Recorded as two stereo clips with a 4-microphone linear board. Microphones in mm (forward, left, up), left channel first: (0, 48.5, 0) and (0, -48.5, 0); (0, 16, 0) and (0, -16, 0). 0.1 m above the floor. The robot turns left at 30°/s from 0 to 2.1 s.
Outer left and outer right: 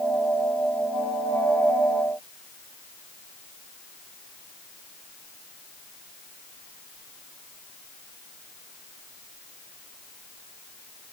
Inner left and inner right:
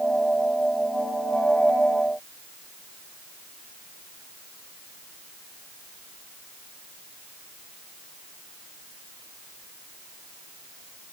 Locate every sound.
Only background noise.